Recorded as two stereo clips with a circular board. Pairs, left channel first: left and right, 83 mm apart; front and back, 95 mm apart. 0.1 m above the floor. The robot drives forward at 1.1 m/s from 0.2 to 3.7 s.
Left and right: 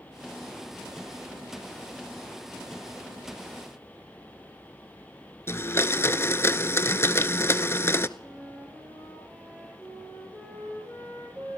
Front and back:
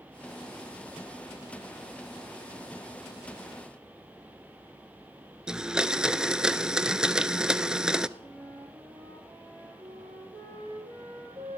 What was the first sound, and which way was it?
A blender, 105° left.